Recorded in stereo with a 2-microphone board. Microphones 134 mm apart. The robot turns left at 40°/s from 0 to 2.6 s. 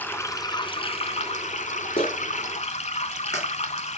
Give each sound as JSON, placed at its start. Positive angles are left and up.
{"t": 0.0, "sound": "running water", "azimuth_deg": 165, "distance_m": 0.7}
{"t": 2.0, "sound": "a clap", "side_deg": 40, "distance_m": 2.0}